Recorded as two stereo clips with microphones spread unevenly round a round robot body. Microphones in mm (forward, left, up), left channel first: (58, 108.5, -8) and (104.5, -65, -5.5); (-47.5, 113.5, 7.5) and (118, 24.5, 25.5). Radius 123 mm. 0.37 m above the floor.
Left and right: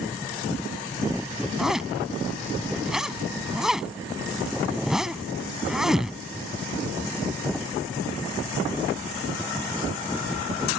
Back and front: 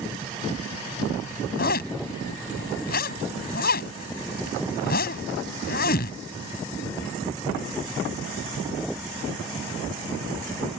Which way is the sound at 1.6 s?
165° right.